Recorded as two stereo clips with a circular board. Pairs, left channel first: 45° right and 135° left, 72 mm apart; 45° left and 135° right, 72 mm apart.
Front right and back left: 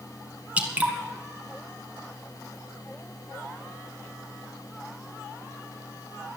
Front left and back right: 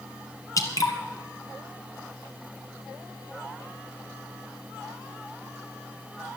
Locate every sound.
0.6 s dripping: 65° left, 1.8 m